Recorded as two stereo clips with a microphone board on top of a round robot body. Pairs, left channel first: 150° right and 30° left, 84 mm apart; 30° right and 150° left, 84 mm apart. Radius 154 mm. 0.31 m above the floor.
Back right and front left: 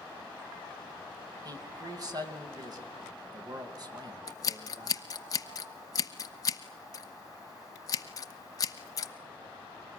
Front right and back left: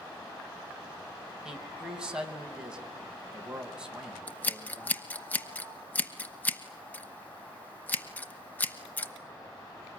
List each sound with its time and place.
1.4 s a man speaking: 70° left, 3 m
4.3 s scissors: 100° right, 1.0 m